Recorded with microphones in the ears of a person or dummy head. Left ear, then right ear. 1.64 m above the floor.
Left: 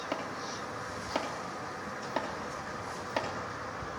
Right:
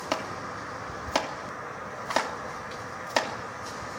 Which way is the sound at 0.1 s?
40° right (ahead or behind).